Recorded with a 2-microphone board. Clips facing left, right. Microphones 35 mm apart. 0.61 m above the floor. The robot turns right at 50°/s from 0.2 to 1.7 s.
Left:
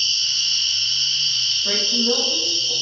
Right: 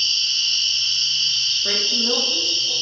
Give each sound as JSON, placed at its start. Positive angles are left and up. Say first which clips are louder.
{"t": 0.0, "sound": "an insect", "louder": "right 1 dB", "azimuth_deg": -140, "distance_m": 1.7}
{"t": 1.6, "sound": "a woman speaking", "louder": "left 1 dB", "side_deg": -30, "distance_m": 0.7}